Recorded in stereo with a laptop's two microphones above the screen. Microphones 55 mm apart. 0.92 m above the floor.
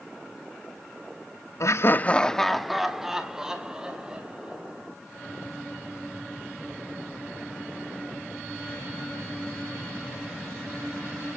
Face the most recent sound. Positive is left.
turn(degrees=-20)  # may be behind; listen again after turning